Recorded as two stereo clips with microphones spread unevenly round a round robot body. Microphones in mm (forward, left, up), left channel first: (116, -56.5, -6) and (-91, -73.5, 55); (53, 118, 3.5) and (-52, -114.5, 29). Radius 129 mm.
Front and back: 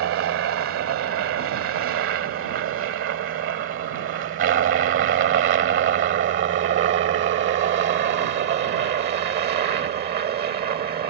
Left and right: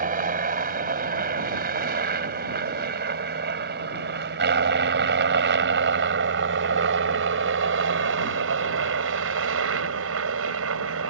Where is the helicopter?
170° right; by 11.1 s 135° right.